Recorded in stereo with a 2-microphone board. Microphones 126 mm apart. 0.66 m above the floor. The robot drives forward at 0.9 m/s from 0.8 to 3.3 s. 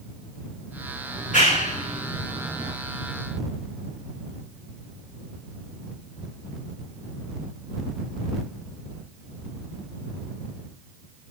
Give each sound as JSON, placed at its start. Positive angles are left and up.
{"t": 1.1, "sound": "a clap", "side_deg": 80, "distance_m": 5.5}